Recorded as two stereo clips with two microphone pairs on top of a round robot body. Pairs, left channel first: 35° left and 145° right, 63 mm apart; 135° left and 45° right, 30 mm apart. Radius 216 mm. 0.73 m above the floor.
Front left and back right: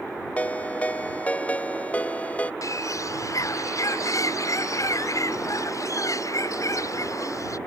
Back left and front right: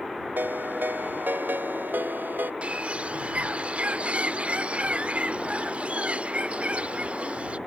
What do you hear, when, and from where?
0.4 s a ringtone: 35° right
2.6 s a bird: straight ahead